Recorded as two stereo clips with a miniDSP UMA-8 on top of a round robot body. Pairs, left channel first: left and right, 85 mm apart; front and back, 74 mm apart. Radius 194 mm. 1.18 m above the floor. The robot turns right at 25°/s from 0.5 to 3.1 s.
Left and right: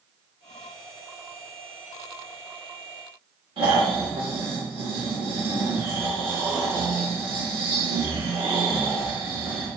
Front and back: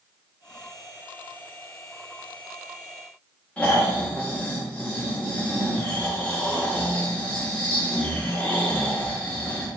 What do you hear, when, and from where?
3.6 s snoring: 75° right, 1.3 m